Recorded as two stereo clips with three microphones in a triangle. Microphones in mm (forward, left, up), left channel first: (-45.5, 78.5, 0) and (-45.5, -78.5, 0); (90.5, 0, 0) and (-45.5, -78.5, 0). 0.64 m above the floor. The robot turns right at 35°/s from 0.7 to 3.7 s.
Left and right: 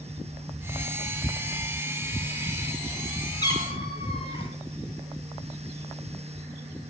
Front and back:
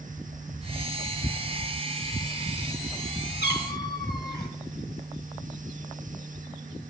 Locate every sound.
3.4 s a cat meowing: 25° left, 1.7 m; by 4.5 s 35° left, 1.7 m